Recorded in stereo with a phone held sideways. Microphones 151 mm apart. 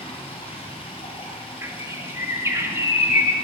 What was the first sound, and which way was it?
Running water, 35° left (ahead or behind).